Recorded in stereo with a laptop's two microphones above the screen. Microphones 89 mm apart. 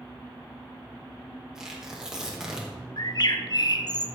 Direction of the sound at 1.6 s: 5° right (ahead or behind).